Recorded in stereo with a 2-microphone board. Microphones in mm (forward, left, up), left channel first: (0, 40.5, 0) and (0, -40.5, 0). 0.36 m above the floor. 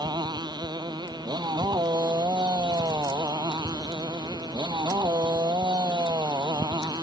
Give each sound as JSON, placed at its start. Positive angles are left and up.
{"t": 0.0, "sound": "a motorcycle", "side_deg": -60}